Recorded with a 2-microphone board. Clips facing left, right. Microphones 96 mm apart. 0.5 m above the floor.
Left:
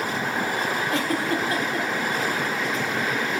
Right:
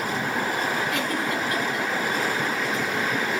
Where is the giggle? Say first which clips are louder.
Left 2 dB; 35° left (ahead or behind), 1.7 m.